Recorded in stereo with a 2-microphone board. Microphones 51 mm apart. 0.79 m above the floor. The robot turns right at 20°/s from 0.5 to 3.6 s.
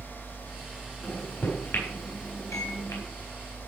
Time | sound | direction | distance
1.0 | a microwave | 40° left (ahead or behind) | 4 m